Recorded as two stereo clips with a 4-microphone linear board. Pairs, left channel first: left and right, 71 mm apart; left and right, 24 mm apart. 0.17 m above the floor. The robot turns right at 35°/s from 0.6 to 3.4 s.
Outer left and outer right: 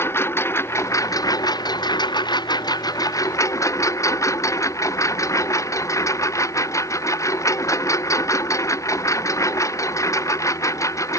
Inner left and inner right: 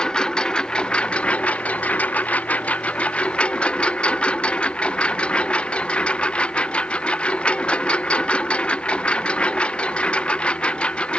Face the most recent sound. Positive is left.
turn(degrees=135)